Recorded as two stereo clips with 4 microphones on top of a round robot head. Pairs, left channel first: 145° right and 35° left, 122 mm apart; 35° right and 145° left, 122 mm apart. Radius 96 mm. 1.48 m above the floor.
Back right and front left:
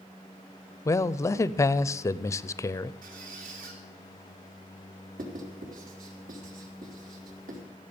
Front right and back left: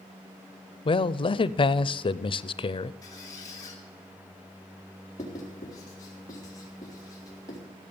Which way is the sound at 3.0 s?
30° left.